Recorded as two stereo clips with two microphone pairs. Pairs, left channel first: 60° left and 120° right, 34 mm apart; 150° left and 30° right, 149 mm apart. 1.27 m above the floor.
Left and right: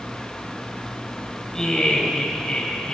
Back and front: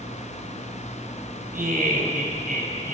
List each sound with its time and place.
1.5 s laughter: 10° right, 6 m; by 3.0 s 5° right, 6.5 m